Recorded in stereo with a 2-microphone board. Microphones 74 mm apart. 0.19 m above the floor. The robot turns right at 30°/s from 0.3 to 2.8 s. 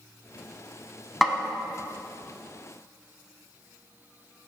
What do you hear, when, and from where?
1.2 s a snare drum: centre (ahead or behind), 0.6 m